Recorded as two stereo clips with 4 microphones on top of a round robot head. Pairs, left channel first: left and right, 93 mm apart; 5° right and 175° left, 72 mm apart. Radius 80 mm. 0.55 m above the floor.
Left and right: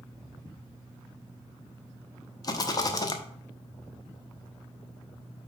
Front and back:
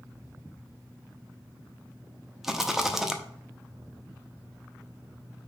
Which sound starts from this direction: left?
A rattle, at 2.4 s.